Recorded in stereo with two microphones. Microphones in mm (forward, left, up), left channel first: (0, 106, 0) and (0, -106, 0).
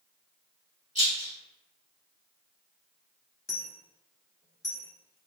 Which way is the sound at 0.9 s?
35° right (ahead or behind).